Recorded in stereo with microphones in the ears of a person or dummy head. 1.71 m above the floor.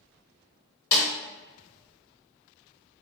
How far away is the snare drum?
About 1.8 m.